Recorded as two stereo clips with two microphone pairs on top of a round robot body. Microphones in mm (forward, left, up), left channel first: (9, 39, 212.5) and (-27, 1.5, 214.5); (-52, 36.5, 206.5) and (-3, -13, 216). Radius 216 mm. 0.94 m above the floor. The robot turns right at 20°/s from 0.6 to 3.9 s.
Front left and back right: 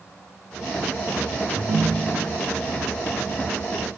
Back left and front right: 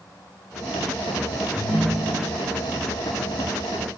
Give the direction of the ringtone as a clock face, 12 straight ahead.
5 o'clock.